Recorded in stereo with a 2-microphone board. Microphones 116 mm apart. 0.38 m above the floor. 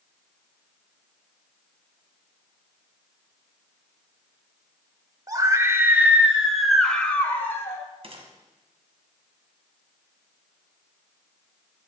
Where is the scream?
30° right (ahead or behind), 1.5 m; by 7.8 s 25° left (ahead or behind), 1.8 m.